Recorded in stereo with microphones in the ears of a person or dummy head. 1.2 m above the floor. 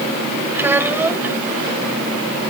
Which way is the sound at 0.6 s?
5° right (ahead or behind).